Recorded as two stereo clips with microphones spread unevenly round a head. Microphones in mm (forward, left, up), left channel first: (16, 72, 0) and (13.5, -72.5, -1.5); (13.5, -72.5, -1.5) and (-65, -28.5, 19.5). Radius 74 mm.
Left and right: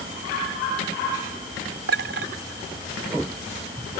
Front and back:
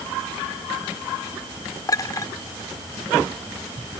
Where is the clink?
80° right.